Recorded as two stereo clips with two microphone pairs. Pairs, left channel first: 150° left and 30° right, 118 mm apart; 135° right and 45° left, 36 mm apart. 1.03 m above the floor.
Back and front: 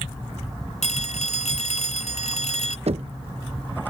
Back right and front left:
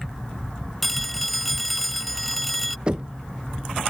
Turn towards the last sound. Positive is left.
turn(degrees=-15)